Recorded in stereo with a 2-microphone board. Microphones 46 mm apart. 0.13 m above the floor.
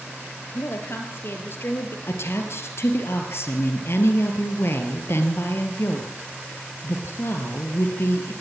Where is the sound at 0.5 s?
55° left (ahead or behind), 3 m.